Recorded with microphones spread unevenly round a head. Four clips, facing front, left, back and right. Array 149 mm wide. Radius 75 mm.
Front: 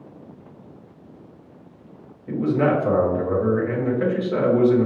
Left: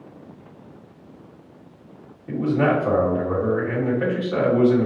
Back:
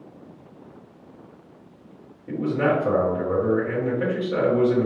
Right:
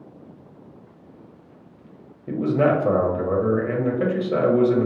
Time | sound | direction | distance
2.3 | a man speaking | 80° right | 1.1 m